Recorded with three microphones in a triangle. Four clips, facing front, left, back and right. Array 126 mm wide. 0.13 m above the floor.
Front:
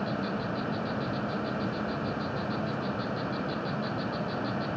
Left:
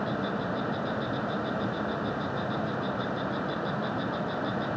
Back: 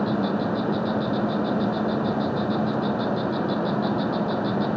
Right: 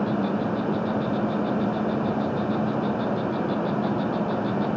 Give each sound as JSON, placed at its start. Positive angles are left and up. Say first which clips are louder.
{"t": 0.0, "sound": "an insect", "louder": "right 6 dB, back 8 dB", "azimuth_deg": -140}